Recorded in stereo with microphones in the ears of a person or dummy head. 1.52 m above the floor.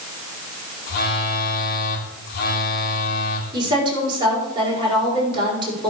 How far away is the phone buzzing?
About 2 m.